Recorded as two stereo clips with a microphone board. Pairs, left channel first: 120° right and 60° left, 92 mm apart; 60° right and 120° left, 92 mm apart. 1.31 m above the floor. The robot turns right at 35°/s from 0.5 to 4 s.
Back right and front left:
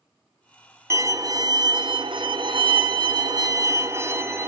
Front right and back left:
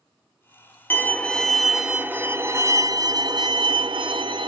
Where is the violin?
5° left, 0.6 m; by 4.5 s 115° left, 0.6 m.